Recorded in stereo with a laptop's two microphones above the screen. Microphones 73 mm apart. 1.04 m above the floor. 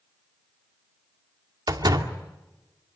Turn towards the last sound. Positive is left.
turn(degrees=-80)